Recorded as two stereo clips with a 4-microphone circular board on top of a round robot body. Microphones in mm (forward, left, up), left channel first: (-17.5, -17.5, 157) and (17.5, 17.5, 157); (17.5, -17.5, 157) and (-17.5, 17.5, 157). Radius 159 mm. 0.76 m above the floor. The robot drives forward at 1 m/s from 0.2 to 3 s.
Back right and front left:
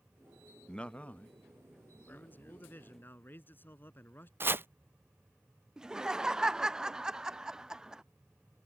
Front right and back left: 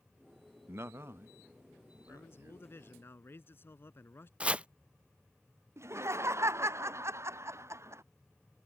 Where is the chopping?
75° left.